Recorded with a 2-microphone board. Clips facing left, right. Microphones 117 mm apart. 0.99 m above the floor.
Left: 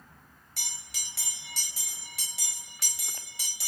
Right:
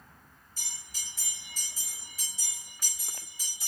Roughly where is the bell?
Left.